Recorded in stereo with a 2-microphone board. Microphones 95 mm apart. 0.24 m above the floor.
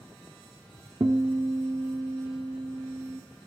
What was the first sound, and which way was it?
A guitar, 45° right (ahead or behind).